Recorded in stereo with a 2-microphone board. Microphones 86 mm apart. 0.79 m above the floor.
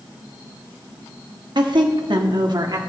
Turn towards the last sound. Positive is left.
turn(degrees=-55)  # may be behind; listen again after turning